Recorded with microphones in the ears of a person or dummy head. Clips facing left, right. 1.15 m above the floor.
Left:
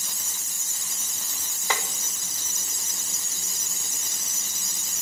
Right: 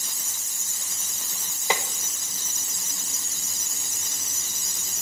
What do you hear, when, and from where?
1.7 s tapping: 15° right (ahead or behind), 0.6 m